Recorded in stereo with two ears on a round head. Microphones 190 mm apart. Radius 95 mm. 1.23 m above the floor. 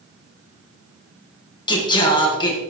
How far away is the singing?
About 1.6 m.